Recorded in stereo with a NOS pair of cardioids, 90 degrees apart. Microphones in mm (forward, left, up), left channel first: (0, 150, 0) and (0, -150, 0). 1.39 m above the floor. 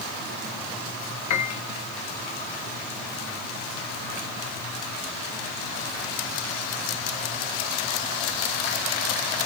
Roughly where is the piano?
Left.